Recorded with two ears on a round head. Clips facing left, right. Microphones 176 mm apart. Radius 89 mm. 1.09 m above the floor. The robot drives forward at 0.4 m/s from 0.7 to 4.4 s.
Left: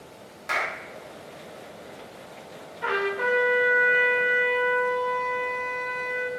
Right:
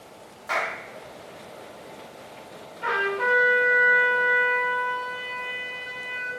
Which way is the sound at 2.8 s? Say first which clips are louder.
Left 1 dB; 5° left (ahead or behind).